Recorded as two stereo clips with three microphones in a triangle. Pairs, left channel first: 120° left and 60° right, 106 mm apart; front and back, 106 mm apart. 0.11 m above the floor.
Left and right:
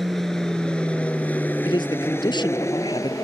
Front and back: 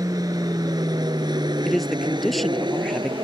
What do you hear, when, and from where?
0.0 s an aircraft: 150° right; by 3.2 s 165° left
1.6 s a man speaking: 90° left